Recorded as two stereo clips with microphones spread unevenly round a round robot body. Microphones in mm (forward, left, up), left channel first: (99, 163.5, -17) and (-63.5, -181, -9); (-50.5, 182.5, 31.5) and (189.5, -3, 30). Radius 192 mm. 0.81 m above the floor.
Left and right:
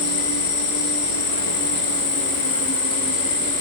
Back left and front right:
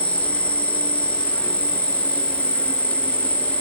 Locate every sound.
0.0 s an insect: 60° left, 1.9 m